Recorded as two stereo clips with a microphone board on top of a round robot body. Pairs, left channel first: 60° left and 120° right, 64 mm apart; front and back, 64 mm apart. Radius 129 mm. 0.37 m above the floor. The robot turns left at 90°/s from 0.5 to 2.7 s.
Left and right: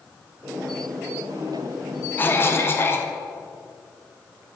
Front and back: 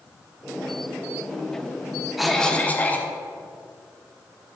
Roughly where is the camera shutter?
I don't hear a camera shutter.